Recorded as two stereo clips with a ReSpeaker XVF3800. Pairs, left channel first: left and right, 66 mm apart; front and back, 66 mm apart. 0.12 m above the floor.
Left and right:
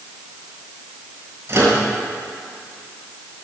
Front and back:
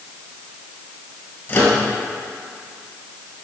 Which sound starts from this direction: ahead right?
A microwave, at 1.5 s.